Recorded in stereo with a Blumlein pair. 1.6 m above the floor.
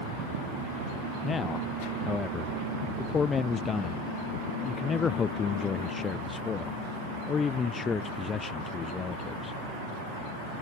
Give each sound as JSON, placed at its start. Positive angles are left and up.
{"t": 1.2, "sound": "a man speaking", "azimuth_deg": 20}